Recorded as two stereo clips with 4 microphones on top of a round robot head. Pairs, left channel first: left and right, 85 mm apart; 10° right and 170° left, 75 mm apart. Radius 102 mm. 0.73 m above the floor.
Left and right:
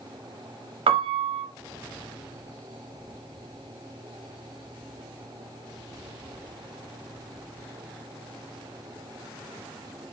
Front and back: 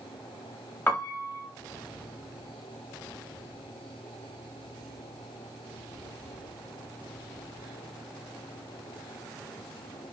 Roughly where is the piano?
Right.